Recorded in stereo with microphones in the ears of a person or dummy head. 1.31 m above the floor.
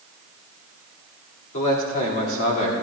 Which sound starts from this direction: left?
A man speaking, at 1.5 s.